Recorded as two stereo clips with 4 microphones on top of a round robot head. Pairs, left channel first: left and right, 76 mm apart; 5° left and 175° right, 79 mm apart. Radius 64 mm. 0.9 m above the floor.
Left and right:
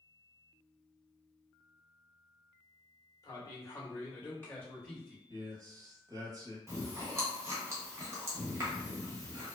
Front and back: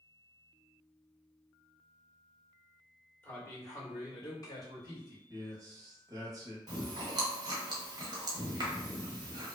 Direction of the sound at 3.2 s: 60° left.